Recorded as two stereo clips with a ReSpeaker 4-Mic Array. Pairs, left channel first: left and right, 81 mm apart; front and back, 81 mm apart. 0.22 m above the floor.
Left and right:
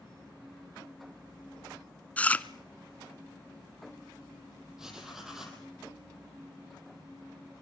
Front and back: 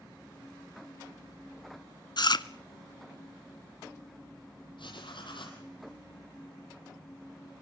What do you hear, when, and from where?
2.2 s chewing: 15° left, 0.7 m
4.8 s writing: 5° right, 5.5 m